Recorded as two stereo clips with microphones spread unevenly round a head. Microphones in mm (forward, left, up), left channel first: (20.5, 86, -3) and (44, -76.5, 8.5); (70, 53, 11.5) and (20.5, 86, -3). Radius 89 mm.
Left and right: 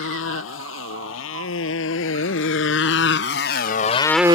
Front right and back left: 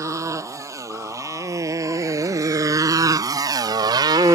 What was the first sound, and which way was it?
A motorcycle, 120° left.